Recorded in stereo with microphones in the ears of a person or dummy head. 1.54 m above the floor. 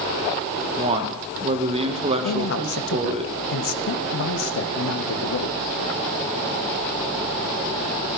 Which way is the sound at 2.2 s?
80° left.